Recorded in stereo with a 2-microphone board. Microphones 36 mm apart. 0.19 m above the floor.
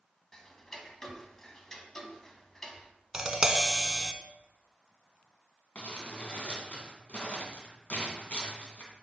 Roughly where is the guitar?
No guitar in this recording.